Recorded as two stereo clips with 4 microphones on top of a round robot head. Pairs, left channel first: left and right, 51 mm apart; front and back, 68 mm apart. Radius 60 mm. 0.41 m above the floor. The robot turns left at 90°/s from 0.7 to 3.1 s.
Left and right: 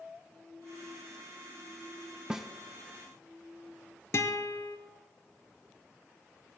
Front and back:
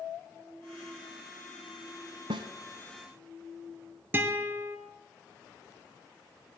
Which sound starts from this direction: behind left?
A guitar, at 4.1 s.